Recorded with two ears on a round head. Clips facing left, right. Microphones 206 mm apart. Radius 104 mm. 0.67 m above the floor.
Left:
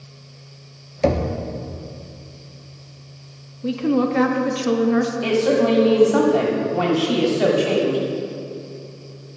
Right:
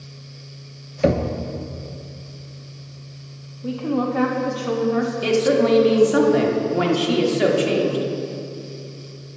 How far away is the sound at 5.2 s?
About 1.5 m.